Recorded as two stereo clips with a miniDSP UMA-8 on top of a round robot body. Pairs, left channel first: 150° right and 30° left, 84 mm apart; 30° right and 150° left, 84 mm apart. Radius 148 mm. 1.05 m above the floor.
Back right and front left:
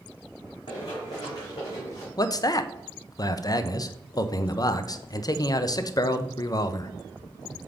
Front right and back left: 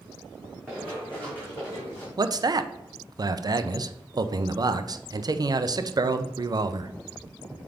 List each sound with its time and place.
0.7 s running footsteps: 110° right, 3 m; by 2.1 s 90° right, 3 m
2.2 s a man speaking: 175° left, 0.7 m